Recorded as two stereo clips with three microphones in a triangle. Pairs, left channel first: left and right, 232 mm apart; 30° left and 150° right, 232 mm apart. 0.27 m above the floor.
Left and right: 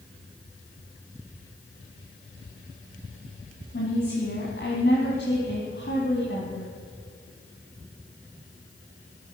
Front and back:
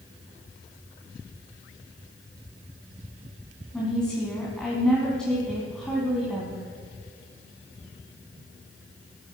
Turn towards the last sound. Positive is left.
turn(degrees=115)